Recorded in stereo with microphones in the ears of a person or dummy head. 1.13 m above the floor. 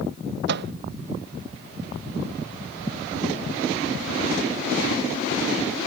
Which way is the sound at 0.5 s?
60° right (ahead or behind).